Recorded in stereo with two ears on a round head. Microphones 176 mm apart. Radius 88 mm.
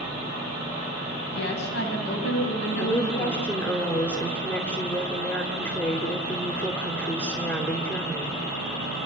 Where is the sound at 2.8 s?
10° left (ahead or behind), 3 m.